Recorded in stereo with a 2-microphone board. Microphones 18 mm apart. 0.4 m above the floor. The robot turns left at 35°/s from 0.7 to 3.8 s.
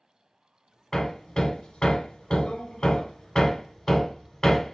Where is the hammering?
40° left (ahead or behind), 0.7 m.